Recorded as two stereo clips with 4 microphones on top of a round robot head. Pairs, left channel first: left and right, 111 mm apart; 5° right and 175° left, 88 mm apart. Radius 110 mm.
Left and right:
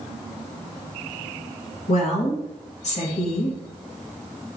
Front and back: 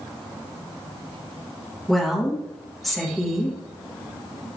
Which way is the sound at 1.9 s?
85° left.